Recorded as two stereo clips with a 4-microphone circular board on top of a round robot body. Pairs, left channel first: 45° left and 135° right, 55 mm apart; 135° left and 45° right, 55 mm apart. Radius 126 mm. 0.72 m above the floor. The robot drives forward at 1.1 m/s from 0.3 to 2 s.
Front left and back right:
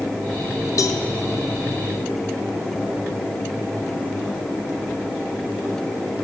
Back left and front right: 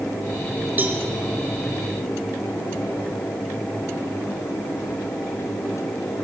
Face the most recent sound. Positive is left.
turn(degrees=150)